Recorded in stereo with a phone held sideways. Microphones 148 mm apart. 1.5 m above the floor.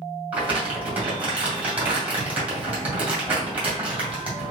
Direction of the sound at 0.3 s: 10° right (ahead or behind).